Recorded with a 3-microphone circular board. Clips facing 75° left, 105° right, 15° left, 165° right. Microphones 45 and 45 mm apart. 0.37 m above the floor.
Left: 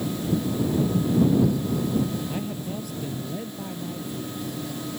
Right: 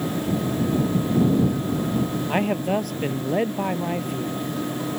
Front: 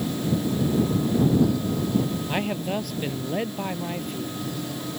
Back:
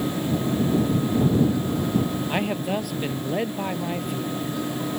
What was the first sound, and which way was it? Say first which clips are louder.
A man speaking: right 9 dB, back 2 dB; 80° right.